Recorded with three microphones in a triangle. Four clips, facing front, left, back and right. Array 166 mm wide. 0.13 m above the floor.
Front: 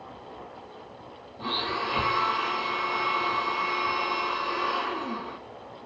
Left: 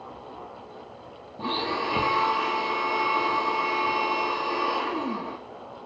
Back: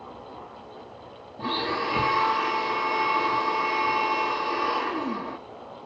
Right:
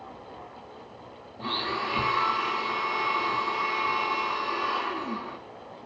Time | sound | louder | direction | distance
1.4 | a blender | left 3 dB, back 3 dB | 120° left | 1.2 m